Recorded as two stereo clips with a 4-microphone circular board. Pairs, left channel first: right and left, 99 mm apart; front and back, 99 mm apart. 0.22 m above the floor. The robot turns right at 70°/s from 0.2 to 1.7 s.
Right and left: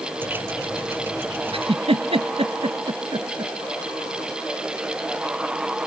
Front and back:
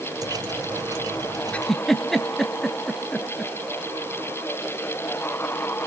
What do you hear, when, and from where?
1.5 s a giggle: 75° left, 0.9 m; by 3.5 s 85° left, 0.9 m